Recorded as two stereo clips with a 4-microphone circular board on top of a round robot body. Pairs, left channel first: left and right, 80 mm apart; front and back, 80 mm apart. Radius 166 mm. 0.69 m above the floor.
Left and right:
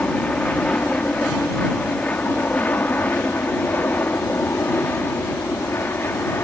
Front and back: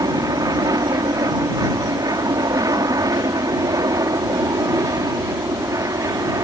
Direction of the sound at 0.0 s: 160° left.